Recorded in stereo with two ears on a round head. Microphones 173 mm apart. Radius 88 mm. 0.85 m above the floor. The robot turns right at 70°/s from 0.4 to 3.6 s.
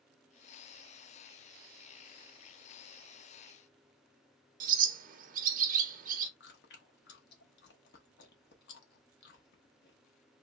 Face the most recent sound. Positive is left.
turn(degrees=65)  # may be behind; listen again after turning